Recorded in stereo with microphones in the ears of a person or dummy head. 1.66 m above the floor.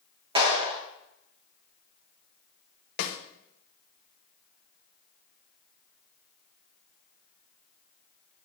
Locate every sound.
0.3 s a clap: 30° right (ahead or behind), 2.5 m
3.0 s a snare drum: 65° left (ahead or behind), 1.1 m